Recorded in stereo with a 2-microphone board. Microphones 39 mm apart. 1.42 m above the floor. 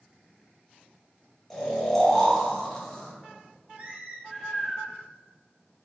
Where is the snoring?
10° left (ahead or behind), 0.8 m.